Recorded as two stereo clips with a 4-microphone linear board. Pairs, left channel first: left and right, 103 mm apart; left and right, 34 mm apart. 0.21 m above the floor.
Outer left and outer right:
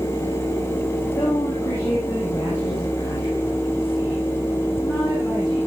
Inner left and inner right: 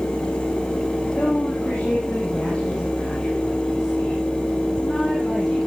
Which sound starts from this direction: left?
A woman speaking, at 1.1 s.